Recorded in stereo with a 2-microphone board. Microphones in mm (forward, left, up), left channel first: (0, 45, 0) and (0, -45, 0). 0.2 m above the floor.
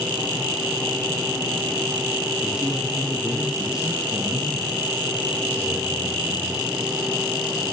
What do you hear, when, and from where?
2.4 s a man speaking: 5° right (ahead or behind), 8.5 m; by 6.7 s 20° right (ahead or behind), 7.5 m